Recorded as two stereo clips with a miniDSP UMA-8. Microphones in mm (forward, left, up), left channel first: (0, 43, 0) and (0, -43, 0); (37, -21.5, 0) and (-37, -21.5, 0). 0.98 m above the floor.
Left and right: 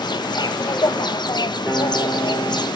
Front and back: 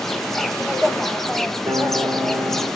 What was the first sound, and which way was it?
An insect, 85° left.